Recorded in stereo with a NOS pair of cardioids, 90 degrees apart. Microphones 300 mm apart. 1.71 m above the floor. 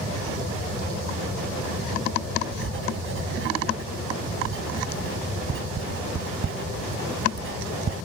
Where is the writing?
40° right.